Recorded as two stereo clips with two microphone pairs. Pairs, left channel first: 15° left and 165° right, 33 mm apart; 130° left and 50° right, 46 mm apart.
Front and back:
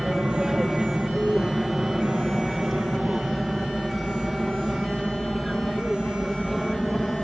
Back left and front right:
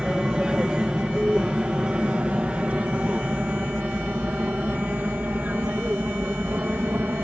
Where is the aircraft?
110° right; by 7.2 s 70° right.